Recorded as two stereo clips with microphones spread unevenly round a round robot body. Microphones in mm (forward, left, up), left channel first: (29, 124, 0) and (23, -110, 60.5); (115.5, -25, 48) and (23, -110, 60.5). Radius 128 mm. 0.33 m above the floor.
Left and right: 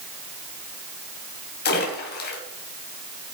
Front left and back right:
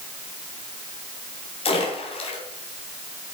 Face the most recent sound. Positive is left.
turn(degrees=70)